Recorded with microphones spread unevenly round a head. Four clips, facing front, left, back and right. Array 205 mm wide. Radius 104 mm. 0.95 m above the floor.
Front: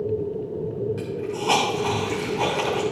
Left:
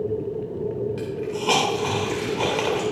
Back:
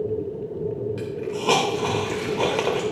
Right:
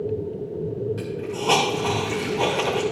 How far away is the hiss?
About 2.5 m.